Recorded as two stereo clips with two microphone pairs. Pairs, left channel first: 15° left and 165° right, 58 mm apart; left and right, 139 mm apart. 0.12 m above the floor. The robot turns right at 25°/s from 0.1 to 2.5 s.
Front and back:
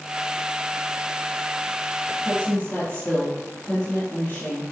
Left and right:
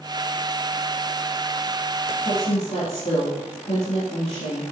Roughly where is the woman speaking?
Ahead left.